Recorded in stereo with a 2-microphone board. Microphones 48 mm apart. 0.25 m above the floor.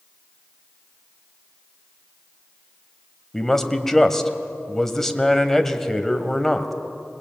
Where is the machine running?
No machine running in this recording.